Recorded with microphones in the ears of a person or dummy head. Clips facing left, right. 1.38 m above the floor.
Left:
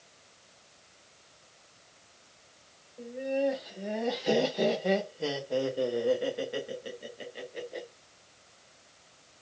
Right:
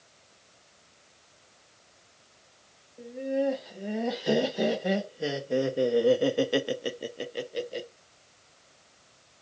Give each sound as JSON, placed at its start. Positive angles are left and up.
{"t": 3.0, "sound": "laughter", "side_deg": -5, "distance_m": 2.0}